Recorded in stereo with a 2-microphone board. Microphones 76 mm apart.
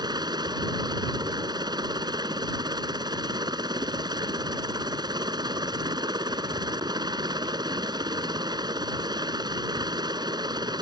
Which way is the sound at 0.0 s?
65° right (ahead or behind).